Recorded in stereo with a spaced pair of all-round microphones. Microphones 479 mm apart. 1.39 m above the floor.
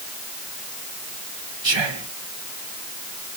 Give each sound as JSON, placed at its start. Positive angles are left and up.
{"t": 1.6, "sound": "whispering", "side_deg": -65, "distance_m": 0.9}